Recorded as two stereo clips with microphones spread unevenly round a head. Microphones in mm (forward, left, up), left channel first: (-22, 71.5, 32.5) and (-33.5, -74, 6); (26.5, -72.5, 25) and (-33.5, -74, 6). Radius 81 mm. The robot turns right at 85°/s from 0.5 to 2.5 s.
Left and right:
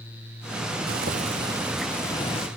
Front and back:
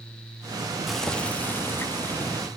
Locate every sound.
0.9 s boiling: 75° right, 0.8 m; by 2.5 s 65° left, 0.8 m